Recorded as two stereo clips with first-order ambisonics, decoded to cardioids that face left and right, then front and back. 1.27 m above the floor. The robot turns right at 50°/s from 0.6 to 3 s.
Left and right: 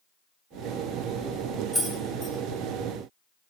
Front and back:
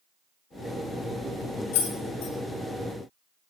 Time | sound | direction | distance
1.7 | keys jangling | straight ahead | 1.6 m